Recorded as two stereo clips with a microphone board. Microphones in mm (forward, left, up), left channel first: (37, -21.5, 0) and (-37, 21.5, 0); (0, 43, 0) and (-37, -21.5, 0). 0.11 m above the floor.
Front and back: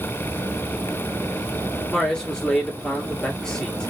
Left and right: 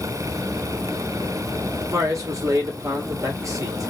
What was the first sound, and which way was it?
A man speaking, 110° right.